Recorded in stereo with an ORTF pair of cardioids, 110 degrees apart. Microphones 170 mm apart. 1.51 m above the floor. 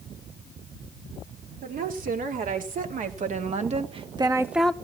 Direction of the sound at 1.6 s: 55° right.